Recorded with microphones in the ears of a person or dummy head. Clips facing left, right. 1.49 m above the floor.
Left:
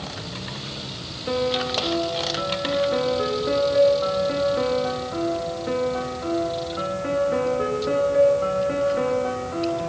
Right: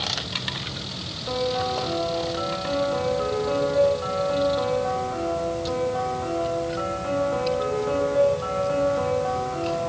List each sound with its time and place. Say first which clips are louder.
1.3 s a piano: left 2 dB; 35° left (ahead or behind), 3 m